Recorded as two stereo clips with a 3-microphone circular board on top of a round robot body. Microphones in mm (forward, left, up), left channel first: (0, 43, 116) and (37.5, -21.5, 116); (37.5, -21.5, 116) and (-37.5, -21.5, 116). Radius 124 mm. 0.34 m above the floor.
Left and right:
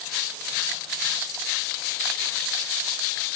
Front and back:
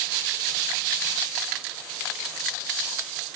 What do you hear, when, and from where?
Only background noise.